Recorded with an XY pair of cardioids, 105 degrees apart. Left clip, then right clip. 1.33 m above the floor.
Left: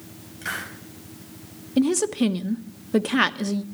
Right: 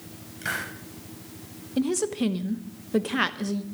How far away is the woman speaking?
About 0.9 m.